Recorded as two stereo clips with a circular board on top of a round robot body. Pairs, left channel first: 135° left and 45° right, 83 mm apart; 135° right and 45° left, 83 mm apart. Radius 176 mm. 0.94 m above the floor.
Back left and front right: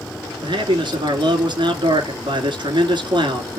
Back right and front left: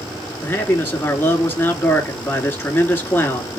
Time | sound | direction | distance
0.4 | a man speaking | 75° right | 3 m